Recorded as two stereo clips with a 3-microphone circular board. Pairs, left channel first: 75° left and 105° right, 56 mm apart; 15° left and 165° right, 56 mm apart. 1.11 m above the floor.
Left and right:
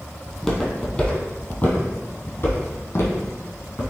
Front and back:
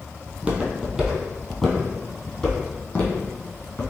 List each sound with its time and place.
0.3 s footsteps: 160° left, 1.2 m; by 3.9 s 65° left, 2 m